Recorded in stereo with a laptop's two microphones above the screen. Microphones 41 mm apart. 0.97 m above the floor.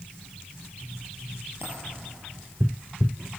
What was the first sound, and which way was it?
A dropped coin, 70° right (ahead or behind).